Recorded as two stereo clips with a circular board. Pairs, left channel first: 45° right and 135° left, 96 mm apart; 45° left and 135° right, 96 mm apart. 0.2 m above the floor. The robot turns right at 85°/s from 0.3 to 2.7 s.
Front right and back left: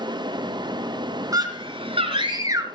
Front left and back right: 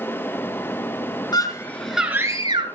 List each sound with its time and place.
1.3 s a scream: 85° left, 3.5 m; by 2.6 s 165° right, 3.5 m